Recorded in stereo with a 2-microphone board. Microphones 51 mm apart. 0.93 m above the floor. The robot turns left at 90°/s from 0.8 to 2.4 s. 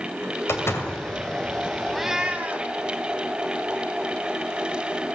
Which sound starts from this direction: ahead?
A cat meowing, at 1.9 s.